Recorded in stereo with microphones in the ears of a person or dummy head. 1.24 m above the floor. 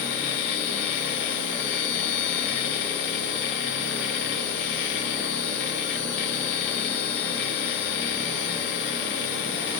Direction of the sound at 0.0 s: 70° left (ahead or behind).